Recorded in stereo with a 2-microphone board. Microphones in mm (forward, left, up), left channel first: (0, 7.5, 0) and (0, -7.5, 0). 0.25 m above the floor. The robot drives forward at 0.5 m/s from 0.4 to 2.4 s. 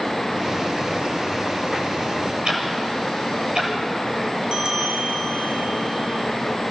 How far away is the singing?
No singing in this recording.